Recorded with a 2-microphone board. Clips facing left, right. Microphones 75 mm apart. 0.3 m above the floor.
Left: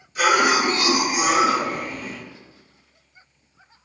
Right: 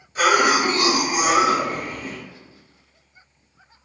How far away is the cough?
About 1.4 m.